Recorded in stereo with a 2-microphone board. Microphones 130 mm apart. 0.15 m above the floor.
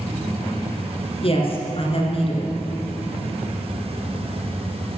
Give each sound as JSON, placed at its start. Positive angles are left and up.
{"t": 1.2, "sound": "a woman speaking", "side_deg": 50, "distance_m": 2.5}